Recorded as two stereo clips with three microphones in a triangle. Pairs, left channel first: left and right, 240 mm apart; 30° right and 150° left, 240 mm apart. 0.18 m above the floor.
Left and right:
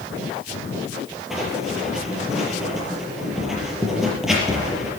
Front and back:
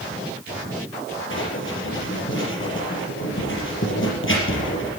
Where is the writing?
Straight ahead, 4.5 m.